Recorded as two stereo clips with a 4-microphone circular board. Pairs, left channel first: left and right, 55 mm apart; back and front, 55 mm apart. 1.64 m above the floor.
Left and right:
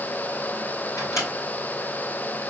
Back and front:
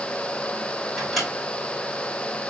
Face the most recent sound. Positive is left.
turn(degrees=90)